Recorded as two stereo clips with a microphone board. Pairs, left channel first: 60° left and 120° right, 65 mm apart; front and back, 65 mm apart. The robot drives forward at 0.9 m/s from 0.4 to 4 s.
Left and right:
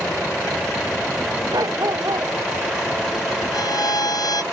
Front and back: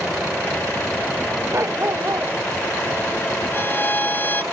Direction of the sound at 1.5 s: 135° right.